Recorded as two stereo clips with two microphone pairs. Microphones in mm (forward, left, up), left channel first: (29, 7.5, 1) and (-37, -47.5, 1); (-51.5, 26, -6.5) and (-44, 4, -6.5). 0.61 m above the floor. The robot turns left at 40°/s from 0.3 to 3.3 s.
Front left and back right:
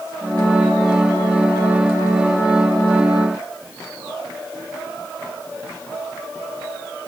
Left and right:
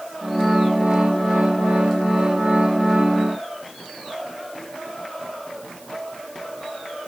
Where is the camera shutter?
No camera shutter in this recording.